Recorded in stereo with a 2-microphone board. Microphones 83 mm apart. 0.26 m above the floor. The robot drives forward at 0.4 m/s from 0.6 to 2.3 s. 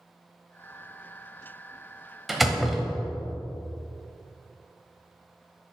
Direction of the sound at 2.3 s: Centre (ahead or behind).